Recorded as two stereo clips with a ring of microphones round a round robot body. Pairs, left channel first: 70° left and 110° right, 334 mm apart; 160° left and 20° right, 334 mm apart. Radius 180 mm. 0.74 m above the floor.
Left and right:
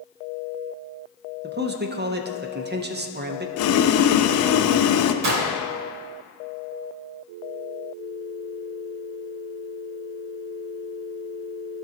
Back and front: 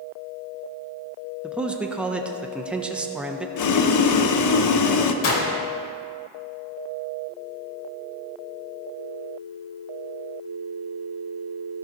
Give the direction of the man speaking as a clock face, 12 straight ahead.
4 o'clock.